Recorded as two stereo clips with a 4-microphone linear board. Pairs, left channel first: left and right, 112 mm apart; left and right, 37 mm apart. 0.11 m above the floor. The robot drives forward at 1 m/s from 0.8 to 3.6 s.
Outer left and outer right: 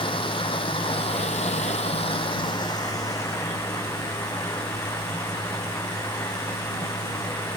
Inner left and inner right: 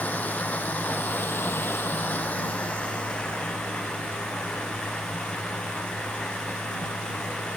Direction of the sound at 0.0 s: 50° left (ahead or behind).